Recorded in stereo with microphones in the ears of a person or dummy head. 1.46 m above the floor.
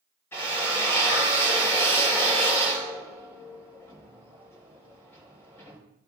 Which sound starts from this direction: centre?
A drill, at 0.3 s.